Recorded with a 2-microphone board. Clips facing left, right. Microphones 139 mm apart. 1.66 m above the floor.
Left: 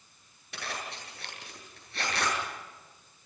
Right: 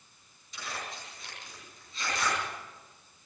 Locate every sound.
0.5 s a zipper: 60° left (ahead or behind), 8.5 m